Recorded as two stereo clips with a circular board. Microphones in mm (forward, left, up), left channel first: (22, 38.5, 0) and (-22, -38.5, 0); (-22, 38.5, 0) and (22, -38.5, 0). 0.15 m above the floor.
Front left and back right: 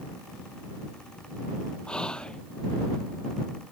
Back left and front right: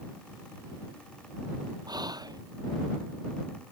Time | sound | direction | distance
1.9 | whispering | 20° right | ?